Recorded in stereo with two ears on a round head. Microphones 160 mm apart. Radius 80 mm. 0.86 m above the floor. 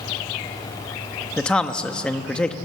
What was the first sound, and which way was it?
A man speaking, 5° left (ahead or behind).